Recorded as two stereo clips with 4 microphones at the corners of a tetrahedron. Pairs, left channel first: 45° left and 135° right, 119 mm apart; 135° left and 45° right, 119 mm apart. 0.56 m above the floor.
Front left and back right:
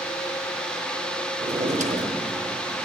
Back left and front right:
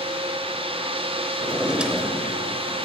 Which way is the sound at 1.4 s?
125° right.